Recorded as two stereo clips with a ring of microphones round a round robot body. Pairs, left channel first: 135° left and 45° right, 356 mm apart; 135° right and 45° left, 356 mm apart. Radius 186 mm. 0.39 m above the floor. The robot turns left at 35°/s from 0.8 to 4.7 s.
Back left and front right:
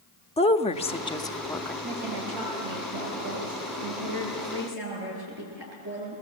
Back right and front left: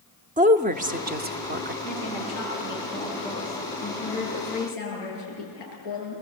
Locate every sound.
0.4 s a woman speaking: 85° left, 0.9 m; by 1.7 s 50° left, 0.9 m
1.8 s a woman speaking: 5° right, 9.5 m; by 6.2 s 105° right, 9.5 m